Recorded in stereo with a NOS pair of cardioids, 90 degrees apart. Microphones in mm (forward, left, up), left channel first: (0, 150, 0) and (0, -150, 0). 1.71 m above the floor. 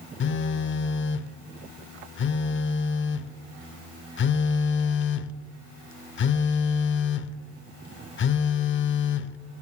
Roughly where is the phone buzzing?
Ahead left.